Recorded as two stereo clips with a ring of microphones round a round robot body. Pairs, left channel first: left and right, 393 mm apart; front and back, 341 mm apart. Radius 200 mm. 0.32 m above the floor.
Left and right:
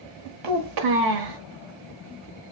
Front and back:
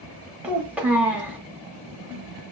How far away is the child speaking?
About 1.0 m.